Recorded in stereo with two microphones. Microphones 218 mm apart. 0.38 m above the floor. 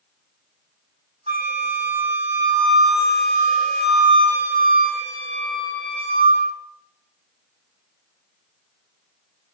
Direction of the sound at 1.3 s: 30° right (ahead or behind).